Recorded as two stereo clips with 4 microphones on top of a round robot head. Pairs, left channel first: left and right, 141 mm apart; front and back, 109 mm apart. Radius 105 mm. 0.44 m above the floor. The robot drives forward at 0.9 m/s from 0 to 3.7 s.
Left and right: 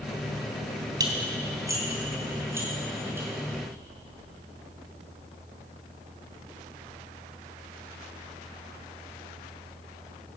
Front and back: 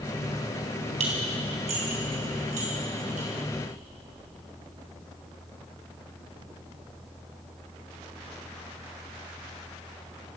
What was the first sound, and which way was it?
Dishes clattering, 155° right.